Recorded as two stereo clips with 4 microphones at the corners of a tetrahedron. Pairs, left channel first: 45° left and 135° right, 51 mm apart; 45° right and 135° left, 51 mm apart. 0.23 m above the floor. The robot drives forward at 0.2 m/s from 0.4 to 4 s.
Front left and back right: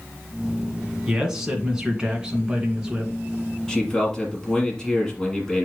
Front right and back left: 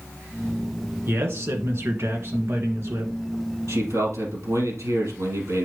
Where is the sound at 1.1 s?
145° left, 1.9 m; by 3.1 s 155° left, 2 m.